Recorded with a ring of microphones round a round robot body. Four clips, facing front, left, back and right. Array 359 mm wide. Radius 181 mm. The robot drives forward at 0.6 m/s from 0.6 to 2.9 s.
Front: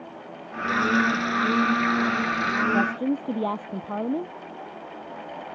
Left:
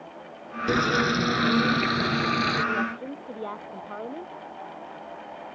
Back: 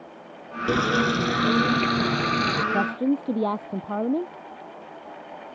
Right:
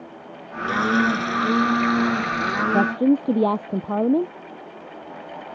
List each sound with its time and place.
0.7 s frying: 145° left; by 2.6 s 150° left
2.7 s a woman speaking: 95° right